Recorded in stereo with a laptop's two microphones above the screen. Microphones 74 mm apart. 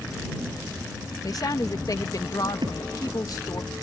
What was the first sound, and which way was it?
A woman speaking, 50° left (ahead or behind).